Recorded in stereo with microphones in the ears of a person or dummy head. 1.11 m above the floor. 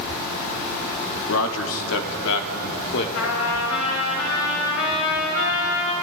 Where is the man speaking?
75° left (ahead or behind), 2.5 m; by 3.0 s 70° left (ahead or behind), 3.5 m.